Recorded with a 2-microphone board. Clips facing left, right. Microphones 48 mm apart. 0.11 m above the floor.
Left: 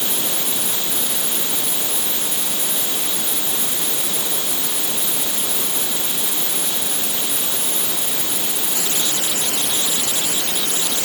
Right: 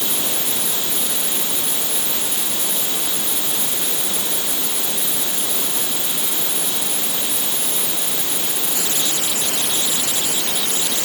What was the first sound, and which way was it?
Only background noise.